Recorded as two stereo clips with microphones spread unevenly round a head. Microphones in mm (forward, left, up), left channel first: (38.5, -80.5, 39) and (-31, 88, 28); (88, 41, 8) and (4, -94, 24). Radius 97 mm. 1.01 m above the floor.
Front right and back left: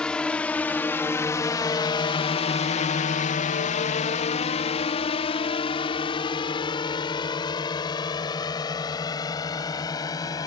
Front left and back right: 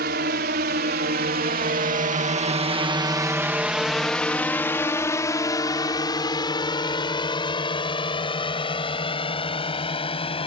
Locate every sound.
0.0 s a drone: 155° right; by 10.5 s 5° left